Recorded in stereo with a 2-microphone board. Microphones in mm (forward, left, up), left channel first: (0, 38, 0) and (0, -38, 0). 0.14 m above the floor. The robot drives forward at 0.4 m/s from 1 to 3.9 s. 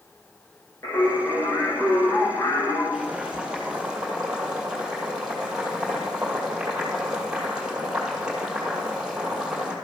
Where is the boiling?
10° right (ahead or behind), 1.9 m.